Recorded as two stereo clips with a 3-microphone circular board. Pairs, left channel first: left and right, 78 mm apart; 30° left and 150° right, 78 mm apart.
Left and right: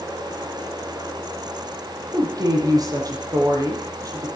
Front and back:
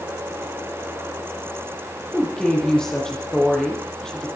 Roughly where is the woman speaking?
Ahead right.